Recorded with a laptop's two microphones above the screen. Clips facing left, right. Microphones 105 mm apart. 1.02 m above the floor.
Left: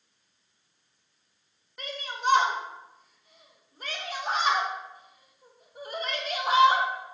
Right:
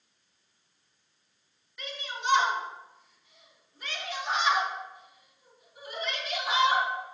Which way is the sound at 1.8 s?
45° left (ahead or behind).